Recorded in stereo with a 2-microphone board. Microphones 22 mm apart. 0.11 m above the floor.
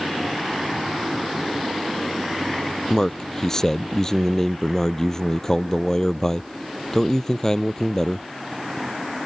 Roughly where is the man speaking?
Left.